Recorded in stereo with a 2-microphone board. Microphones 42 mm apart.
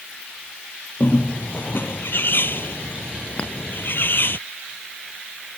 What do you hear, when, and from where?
1.0 s a bird: 55° left (ahead or behind)
3.4 s a clink: 30° left (ahead or behind)